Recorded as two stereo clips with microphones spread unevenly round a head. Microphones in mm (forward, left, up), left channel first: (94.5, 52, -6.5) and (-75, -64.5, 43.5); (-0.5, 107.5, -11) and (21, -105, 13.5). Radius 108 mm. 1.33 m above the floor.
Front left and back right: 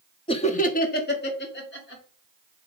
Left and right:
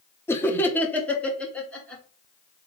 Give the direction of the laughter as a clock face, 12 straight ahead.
11 o'clock.